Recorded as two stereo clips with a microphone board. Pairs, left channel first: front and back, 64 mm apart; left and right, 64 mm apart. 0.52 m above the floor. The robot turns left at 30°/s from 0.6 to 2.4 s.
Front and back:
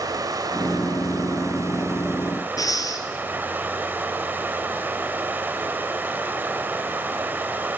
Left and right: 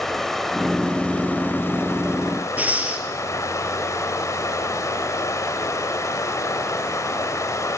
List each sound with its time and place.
0.0 s running water: 175° left, 1.6 m; by 7.8 s 120° left, 1.6 m
2.6 s breathing: 25° right, 2 m